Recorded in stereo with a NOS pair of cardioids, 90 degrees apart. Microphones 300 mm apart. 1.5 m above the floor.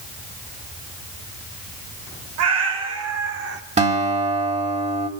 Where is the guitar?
25° right, 3.5 m.